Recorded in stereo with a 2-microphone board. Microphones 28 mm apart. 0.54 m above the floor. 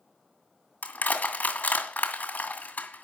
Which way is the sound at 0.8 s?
65° left (ahead or behind).